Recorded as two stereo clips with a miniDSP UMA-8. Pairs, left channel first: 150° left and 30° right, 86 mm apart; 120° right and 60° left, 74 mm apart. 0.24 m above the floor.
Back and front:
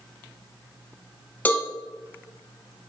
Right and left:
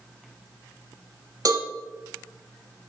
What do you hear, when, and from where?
1.4 s a cowbell: 80° left, 1.2 m